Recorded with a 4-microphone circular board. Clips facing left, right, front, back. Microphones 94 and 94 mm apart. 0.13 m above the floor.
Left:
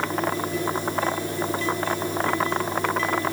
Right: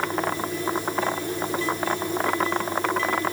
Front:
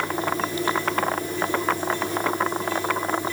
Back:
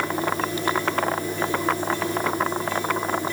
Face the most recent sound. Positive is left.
No sound to turn to.